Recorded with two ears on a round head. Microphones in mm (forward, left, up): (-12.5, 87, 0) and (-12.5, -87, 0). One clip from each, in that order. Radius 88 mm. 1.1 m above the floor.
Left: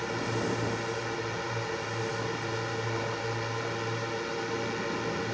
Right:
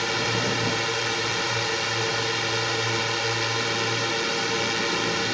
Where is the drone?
70° right (ahead or behind).